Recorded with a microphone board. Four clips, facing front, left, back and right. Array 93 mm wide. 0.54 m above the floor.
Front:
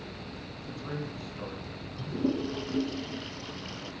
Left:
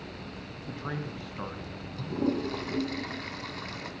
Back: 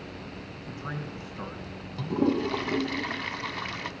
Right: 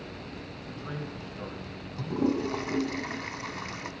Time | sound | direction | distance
0.7 | a man speaking | 115° left | 3 m
2.0 | a toilet flushing | 170° right | 1.7 m